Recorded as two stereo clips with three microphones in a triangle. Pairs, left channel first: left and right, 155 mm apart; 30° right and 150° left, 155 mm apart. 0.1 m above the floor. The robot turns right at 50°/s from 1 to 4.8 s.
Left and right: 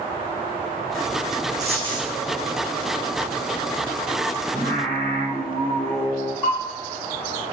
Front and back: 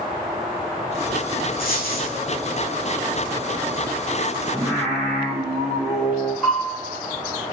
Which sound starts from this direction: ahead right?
A dropped coin, at 1.6 s.